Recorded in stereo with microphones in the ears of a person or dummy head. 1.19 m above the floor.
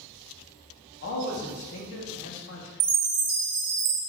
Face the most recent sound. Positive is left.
turn(degrees=-55)  # may be behind; listen again after turning